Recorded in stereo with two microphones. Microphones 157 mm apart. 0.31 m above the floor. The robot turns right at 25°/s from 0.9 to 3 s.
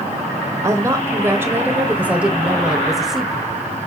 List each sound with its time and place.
0.6 s a woman speaking: 20° right (ahead or behind), 1.0 m; by 3.5 s centre (ahead or behind), 1.0 m